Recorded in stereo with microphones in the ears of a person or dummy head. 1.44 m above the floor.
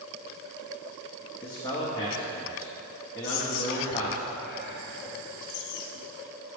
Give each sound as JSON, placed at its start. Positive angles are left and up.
{"t": 1.4, "sound": "a man speaking", "side_deg": 20, "distance_m": 0.9}
{"t": 3.2, "sound": "whispering", "side_deg": 50, "distance_m": 0.8}